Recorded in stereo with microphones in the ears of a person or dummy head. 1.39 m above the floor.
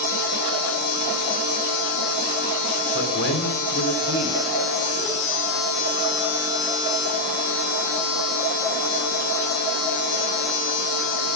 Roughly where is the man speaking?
Left.